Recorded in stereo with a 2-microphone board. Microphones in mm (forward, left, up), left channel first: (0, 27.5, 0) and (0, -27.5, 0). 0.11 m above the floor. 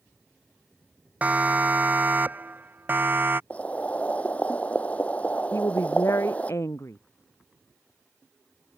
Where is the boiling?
25° left (ahead or behind).